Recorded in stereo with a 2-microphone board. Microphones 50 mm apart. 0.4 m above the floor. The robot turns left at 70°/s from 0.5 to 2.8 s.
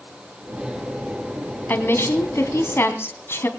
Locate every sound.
1.7 s a woman speaking: 135° left, 2.5 m; by 3.5 s 60° left, 2.5 m